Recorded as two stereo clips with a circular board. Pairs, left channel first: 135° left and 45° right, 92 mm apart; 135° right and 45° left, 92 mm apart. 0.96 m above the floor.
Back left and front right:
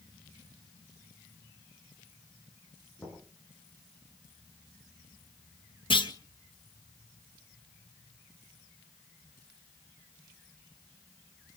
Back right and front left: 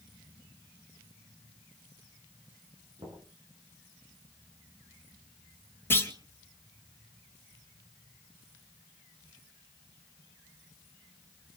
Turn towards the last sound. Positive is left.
turn(degrees=160)